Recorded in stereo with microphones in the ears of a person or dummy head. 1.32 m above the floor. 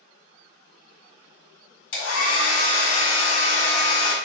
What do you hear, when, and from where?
1.9 s a hair dryer: 75° left (ahead or behind), 1.7 m